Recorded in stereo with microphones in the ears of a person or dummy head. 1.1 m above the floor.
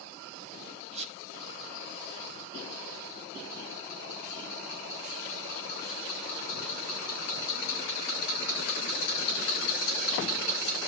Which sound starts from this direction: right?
A squeak, at 0.9 s.